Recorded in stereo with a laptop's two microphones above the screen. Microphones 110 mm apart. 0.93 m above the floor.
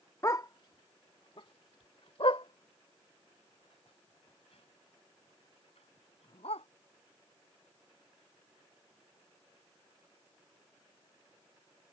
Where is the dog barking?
30° left (ahead or behind); by 6.7 s 80° left.